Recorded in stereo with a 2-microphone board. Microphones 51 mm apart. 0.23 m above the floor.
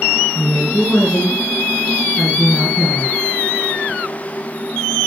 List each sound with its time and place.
0.3 s a woman speaking: 15° left (ahead or behind), 2.5 m